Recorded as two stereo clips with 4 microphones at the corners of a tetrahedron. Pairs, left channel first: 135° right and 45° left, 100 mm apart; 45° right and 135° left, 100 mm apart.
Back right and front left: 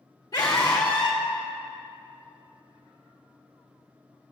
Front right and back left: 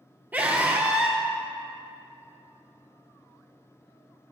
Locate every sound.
0.3 s a scream: 165° right, 1.8 m